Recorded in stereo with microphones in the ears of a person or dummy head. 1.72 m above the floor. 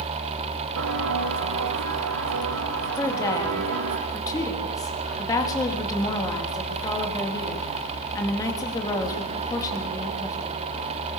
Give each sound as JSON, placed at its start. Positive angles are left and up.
{"t": 0.8, "sound": "footsteps", "side_deg": -65, "distance_m": 4.0}
{"t": 3.0, "sound": "a woman speaking", "side_deg": 15, "distance_m": 4.0}